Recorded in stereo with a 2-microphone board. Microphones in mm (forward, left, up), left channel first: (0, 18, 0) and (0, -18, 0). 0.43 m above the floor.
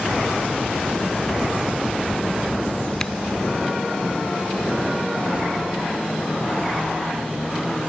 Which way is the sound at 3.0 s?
15° left (ahead or behind).